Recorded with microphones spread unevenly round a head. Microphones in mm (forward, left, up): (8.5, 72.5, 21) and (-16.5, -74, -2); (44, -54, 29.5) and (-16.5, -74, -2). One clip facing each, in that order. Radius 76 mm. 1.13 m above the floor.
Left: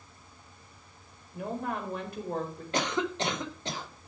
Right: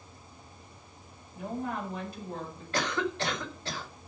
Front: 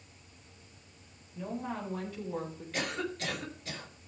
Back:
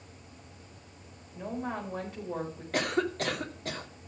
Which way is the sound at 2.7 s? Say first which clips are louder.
Left 1 dB, back 7 dB; 155° left.